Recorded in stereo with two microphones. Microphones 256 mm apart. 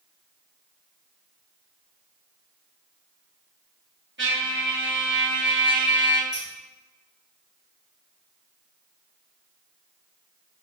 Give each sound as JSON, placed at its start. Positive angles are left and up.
{"t": 4.2, "sound": "a trumpet", "side_deg": -45, "distance_m": 0.8}
{"t": 6.3, "sound": "scissors", "side_deg": 60, "distance_m": 1.8}